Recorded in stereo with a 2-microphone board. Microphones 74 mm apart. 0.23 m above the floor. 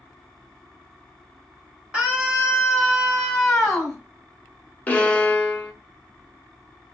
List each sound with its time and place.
1.9 s a scream: 15° right (ahead or behind), 1.2 m; by 4.0 s 5° left (ahead or behind), 1.4 m
4.9 s a violin: 20° left (ahead or behind), 0.6 m